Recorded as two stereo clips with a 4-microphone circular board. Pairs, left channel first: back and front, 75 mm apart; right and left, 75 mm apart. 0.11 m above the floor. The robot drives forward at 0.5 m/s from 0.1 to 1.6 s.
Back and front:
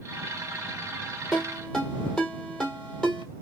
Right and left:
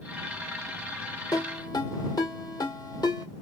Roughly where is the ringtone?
Right.